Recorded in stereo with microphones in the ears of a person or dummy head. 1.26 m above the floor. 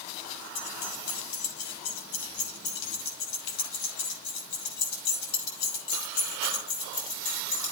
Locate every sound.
0.6 s keys jangling: 85° left, 5.5 m; by 7.7 s 45° left (ahead or behind), 5.5 m